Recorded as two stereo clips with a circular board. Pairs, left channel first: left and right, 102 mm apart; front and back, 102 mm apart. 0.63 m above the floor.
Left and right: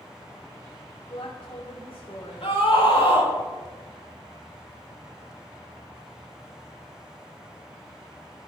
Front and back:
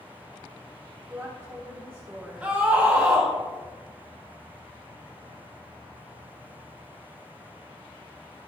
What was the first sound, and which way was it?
A woman speaking, 115° left.